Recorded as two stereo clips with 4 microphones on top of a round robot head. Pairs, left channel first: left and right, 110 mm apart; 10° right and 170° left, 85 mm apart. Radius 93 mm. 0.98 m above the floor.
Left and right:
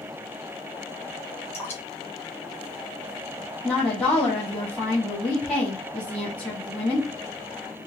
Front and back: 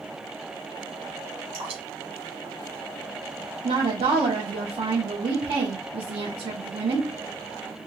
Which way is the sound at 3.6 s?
Straight behind.